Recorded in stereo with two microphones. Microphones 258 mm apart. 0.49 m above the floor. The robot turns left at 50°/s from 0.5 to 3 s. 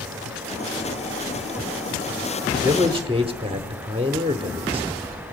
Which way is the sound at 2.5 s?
5° right (ahead or behind).